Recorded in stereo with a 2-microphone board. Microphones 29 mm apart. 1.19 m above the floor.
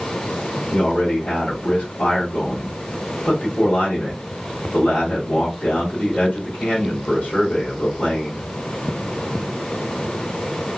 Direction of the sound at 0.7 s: 65° left (ahead or behind).